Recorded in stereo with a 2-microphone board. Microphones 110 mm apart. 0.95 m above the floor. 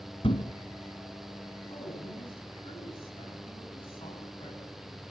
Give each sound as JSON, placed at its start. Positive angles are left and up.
{"t": 0.2, "sound": "a thud", "side_deg": 60, "distance_m": 1.9}
{"t": 1.7, "sound": "a woman speaking", "side_deg": 55, "distance_m": 9.0}